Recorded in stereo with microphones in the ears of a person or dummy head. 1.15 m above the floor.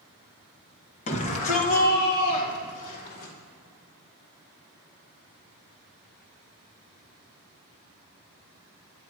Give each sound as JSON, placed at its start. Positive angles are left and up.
{"t": 1.1, "sound": "a shout", "side_deg": 30, "distance_m": 1.4}